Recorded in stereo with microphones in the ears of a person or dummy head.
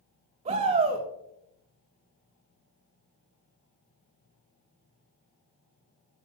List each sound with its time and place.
0.5 s a shout: 40° right (ahead or behind), 2 m